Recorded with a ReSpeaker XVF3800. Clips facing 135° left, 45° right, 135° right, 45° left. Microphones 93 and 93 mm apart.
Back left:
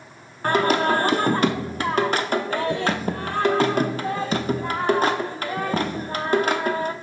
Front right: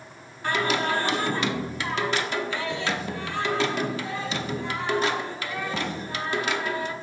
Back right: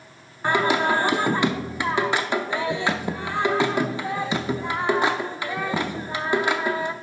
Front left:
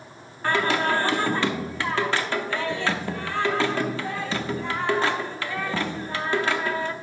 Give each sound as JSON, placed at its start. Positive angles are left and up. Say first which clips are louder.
{"t": 0.4, "sound": "singing", "louder": "back left 6 dB, back right 2 dB", "azimuth_deg": 160, "distance_m": 0.6}